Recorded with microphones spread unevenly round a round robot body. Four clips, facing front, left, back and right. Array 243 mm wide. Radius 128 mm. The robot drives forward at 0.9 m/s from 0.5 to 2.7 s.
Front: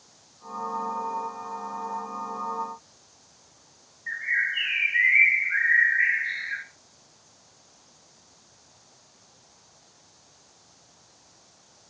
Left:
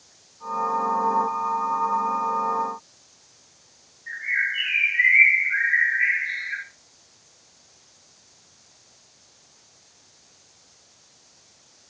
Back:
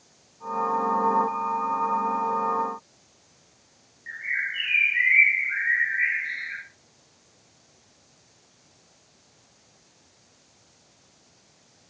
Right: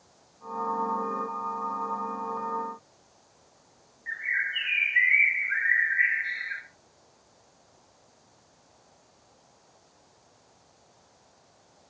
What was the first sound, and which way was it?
A bird, 60° right.